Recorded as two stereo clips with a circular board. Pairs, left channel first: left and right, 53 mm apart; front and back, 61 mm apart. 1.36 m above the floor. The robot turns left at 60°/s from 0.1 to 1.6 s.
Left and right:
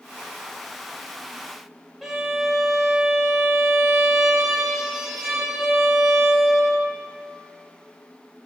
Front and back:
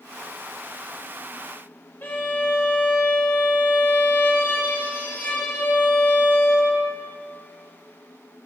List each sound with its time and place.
2.0 s a violin: 10° right, 1.2 m